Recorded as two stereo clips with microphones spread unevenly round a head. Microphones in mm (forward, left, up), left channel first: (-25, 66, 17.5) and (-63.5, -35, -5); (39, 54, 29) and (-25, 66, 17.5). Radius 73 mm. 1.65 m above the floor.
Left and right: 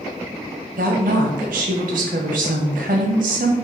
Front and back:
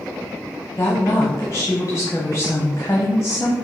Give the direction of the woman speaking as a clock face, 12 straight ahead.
3 o'clock.